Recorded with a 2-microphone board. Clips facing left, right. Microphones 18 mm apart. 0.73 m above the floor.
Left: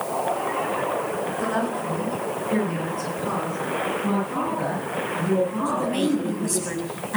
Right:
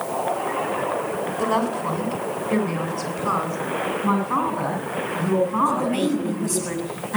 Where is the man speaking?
50° right (ahead or behind), 5.5 m.